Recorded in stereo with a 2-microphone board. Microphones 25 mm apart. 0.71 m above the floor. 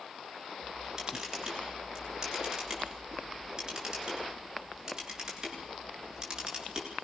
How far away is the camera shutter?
About 8.5 m.